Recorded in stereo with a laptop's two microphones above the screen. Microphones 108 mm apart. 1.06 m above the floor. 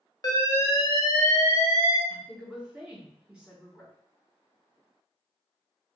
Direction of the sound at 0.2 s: 35° left (ahead or behind).